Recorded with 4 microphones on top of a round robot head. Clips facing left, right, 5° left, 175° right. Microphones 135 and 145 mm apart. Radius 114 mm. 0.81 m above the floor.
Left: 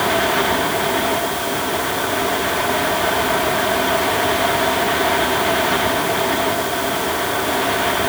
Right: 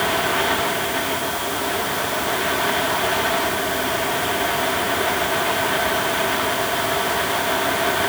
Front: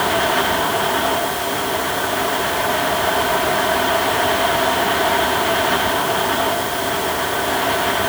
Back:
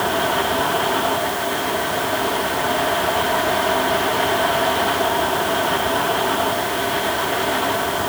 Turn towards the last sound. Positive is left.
No sound to turn to.